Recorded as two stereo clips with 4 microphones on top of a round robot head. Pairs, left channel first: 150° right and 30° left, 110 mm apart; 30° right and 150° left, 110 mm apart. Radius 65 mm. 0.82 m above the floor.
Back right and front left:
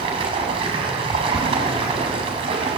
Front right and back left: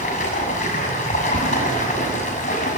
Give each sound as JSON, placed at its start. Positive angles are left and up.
{"t": 0.0, "sound": "running water", "azimuth_deg": -10, "distance_m": 7.0}